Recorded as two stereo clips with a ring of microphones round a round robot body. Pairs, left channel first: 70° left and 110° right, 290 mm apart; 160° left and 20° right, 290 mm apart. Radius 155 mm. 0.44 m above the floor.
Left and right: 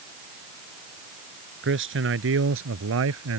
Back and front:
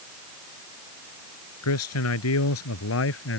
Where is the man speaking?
165° right; by 3.4 s 155° right.